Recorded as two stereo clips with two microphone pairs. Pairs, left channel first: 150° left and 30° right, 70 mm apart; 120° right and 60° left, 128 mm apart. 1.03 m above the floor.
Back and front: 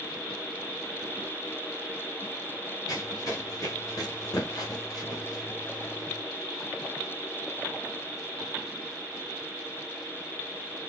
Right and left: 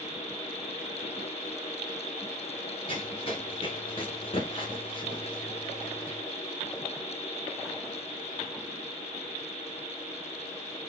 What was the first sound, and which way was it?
Running footsteps, 170° right.